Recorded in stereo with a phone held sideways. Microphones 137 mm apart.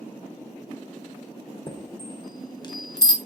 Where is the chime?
30° left (ahead or behind), 1.0 m.